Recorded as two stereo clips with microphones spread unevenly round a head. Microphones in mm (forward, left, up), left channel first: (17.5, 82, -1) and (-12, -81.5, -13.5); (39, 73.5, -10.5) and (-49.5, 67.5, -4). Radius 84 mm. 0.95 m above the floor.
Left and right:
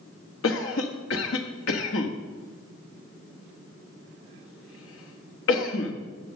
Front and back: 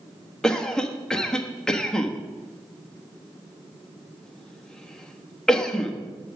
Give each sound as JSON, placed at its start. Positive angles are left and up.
{"t": 0.4, "sound": "a cough", "azimuth_deg": 85, "distance_m": 1.4}